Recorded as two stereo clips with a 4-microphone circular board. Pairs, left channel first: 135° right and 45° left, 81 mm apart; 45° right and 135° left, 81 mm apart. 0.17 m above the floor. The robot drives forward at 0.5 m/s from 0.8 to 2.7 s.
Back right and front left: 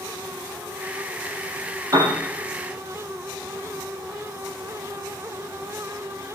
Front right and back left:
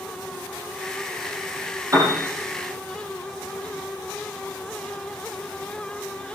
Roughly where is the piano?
Left.